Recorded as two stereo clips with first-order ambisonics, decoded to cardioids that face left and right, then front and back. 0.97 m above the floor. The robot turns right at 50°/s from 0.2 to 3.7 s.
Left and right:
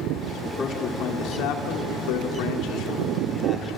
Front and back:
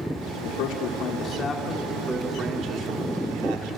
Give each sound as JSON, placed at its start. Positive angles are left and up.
{"t": 0.6, "sound": "a man speaking", "azimuth_deg": 20, "distance_m": 2.5}